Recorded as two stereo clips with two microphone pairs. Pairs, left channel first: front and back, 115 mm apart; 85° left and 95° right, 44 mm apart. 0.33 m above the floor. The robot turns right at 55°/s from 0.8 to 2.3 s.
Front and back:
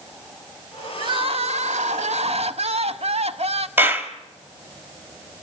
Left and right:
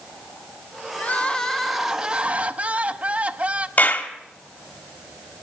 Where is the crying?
135° left, 0.7 m; by 3.7 s 150° right, 0.7 m.